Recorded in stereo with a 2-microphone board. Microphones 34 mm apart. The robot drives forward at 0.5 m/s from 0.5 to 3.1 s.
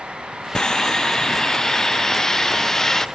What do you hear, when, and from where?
0.6 s sawing: 20° left (ahead or behind); by 3.0 s 15° left (ahead or behind)